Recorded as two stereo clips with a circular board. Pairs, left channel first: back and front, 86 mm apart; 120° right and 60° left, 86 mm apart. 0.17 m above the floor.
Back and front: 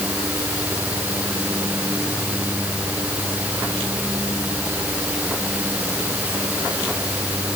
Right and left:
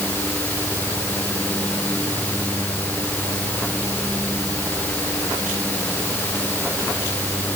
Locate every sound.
Only background noise.